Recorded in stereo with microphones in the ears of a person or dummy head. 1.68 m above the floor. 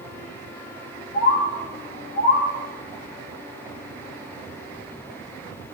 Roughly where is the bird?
Left.